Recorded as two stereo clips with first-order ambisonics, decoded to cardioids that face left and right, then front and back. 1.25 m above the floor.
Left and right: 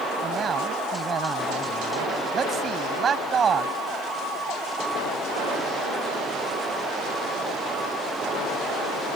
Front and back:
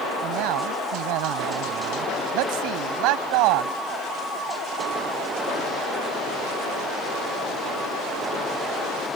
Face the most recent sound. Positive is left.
turn(degrees=-160)